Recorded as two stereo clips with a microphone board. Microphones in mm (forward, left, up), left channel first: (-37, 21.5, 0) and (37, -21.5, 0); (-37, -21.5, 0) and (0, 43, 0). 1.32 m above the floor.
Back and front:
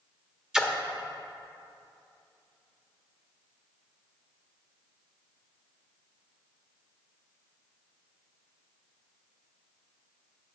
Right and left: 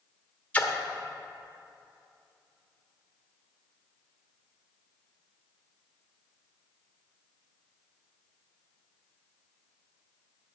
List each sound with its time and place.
0.5 s a splash: 100° right, 1.0 m